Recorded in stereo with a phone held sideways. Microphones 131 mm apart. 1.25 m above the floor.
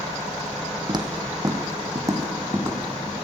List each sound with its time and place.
0.9 s footsteps: 35° right (ahead or behind), 2 m; by 3.1 s 15° right (ahead or behind), 3 m